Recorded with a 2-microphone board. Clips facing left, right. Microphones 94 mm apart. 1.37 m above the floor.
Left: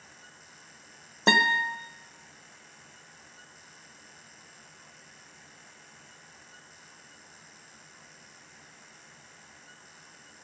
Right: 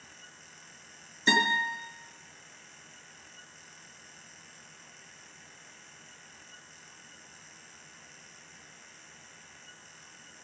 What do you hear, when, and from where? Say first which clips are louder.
1.3 s a guitar: left 3 dB; 70° left (ahead or behind), 1.1 m